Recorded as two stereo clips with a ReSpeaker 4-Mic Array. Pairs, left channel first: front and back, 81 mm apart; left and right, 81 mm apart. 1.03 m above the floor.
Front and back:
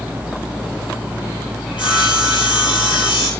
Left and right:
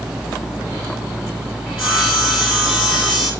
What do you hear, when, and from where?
1.7 s sawing: 5° right, 9 m